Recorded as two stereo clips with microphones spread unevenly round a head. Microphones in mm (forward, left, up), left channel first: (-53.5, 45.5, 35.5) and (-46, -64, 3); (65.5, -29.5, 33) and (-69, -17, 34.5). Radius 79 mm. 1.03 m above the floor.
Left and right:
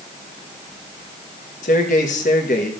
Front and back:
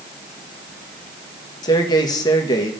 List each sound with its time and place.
1.6 s a man speaking: 55° left, 1.1 m